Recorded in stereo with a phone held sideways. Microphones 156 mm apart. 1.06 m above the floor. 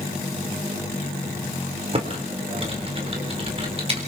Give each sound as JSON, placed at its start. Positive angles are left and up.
{"t": 1.9, "sound": "typing on a keyboard", "side_deg": -40, "distance_m": 4.0}